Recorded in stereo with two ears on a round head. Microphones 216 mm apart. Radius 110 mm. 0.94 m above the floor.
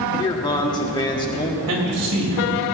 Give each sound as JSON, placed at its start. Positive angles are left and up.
{"t": 0.2, "sound": "a man speaking", "side_deg": 15, "distance_m": 1.6}
{"t": 1.7, "sound": "a man speaking", "side_deg": -75, "distance_m": 4.5}